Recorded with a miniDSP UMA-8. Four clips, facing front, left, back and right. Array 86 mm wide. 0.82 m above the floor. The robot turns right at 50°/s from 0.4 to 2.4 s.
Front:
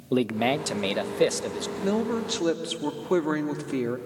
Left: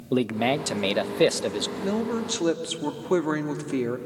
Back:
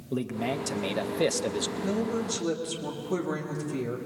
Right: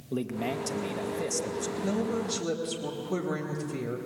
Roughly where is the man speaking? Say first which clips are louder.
Left 8 dB, front 6 dB; ahead left.